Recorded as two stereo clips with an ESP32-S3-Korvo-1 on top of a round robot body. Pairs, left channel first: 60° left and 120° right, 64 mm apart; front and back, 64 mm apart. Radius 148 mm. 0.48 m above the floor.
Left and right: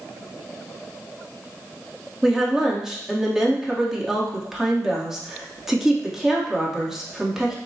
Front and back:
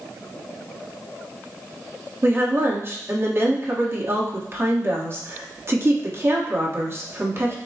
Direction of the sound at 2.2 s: 160° left.